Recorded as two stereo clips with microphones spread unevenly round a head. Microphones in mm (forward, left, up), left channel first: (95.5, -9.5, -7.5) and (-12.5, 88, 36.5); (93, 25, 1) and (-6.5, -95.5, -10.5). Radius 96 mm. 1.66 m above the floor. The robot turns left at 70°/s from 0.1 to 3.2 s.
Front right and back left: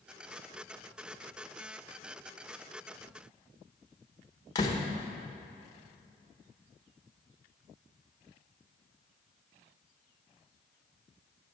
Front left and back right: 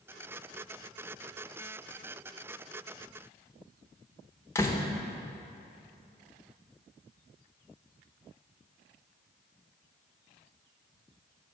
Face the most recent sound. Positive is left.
turn(degrees=25)